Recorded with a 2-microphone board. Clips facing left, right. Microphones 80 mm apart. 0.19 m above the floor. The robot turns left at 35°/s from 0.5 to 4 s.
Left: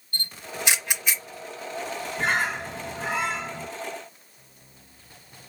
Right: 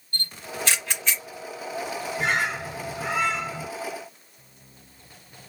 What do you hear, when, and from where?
0.1 s a camera shutter: 20° left (ahead or behind), 0.9 m; by 1.2 s 10° left (ahead or behind), 0.9 m
2.2 s a bird: 110° left, 1.9 m; by 3.7 s 60° left, 1.9 m